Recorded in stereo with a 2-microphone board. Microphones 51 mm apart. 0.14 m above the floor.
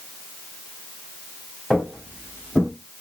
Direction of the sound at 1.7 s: 15° left (ahead or behind).